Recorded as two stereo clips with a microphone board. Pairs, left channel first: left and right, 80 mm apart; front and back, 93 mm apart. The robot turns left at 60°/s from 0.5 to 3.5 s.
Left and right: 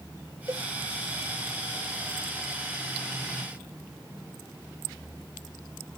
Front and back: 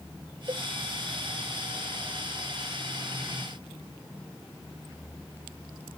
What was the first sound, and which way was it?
A cowbell, 140° right.